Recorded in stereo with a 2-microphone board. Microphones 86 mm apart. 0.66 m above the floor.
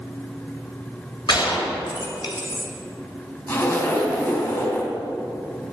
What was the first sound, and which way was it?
A gunshot, 65° left (ahead or behind).